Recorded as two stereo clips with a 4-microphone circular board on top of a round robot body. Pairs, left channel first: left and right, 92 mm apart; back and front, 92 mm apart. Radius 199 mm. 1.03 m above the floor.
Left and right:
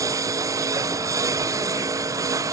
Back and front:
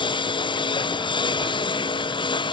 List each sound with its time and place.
0.0 s a lawn mower: 145° right